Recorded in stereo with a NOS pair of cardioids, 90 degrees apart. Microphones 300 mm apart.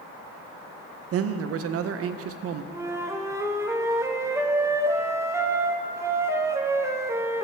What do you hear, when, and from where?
1.1 s a man speaking: 50° right, 0.5 m
2.7 s a flute: 10° right, 0.6 m